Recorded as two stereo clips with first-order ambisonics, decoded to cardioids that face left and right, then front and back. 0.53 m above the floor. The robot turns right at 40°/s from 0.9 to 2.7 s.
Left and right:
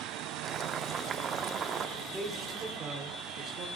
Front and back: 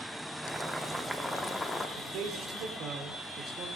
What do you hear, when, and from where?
0.4 s boiling: 105° right, 0.6 m; by 1.9 s 65° right, 0.6 m
2.0 s a man speaking: 170° right, 1.5 m; by 3.7 s 140° right, 1.5 m